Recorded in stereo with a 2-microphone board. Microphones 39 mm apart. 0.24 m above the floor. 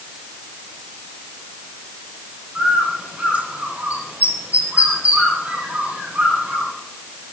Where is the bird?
45° right (ahead or behind), 9 m.